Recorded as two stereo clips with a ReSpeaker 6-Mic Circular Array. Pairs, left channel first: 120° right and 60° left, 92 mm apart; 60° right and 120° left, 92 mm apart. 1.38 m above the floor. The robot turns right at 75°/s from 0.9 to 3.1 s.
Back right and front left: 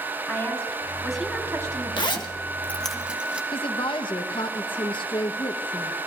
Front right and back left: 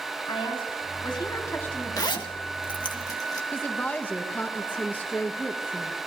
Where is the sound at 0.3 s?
50° right, 4 m; by 2.3 s 55° left, 4 m.